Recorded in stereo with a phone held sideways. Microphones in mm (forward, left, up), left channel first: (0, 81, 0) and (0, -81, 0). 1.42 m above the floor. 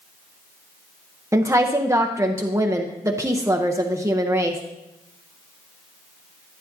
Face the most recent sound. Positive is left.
turn(degrees=-20)  # may be behind; listen again after turning